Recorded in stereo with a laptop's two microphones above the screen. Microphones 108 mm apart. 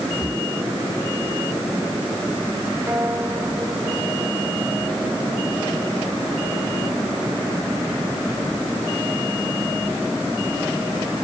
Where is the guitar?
25° right (ahead or behind).